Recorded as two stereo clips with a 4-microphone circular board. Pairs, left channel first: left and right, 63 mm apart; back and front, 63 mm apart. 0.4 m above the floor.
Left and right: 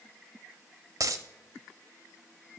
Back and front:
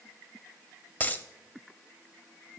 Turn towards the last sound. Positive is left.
turn(degrees=-115)